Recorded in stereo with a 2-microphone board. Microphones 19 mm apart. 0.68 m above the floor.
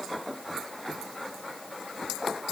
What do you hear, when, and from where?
Only background noise.